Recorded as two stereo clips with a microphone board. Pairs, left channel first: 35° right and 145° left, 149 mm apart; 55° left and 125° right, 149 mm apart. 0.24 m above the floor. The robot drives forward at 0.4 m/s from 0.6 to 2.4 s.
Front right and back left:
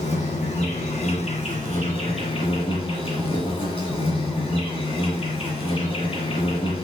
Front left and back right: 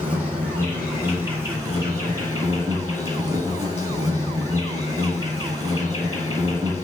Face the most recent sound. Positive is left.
turn(degrees=-75)